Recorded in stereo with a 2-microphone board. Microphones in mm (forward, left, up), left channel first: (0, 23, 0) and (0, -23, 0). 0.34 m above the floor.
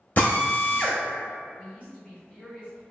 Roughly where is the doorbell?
I don't hear a doorbell.